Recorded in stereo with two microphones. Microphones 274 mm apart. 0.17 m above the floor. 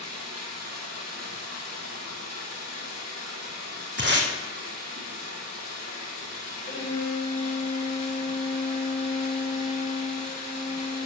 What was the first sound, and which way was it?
Running water, 60° right (ahead or behind).